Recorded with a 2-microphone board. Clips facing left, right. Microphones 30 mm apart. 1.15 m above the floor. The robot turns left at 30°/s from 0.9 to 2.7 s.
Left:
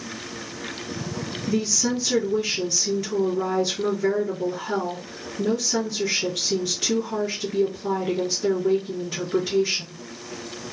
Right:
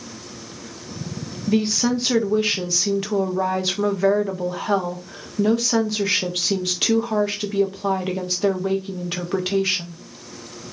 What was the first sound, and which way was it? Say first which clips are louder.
A woman speaking: right 5 dB; 40° right.